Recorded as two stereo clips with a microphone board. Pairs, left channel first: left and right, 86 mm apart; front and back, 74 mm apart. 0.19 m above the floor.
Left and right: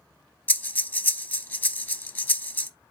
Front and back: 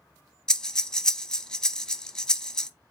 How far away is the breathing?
About 0.6 m.